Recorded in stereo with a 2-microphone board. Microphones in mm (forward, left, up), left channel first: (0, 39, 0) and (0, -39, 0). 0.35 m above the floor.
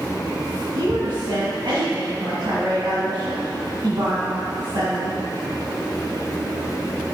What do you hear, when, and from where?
0.8 s a woman speaking: 65° right (ahead or behind), 2 m